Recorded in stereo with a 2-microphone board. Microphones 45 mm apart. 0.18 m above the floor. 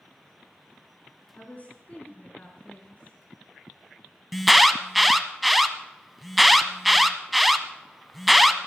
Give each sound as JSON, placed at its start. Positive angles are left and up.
{"t": 1.4, "sound": "a woman speaking", "side_deg": 35, "distance_m": 2.5}
{"t": 4.3, "sound": "an alarm", "side_deg": 0, "distance_m": 0.8}